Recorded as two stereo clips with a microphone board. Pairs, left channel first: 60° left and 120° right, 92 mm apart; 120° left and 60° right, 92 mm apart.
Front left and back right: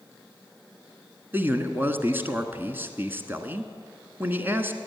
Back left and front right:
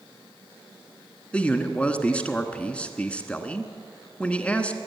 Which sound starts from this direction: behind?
A man speaking, at 1.3 s.